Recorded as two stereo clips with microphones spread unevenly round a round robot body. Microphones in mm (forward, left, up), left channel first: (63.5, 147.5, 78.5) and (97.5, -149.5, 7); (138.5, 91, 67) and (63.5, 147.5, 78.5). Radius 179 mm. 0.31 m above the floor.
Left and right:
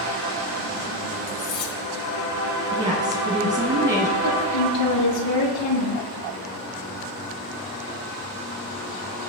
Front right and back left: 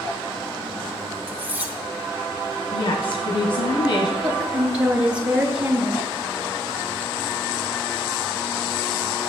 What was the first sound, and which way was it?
Cutlery clinking, 70° left.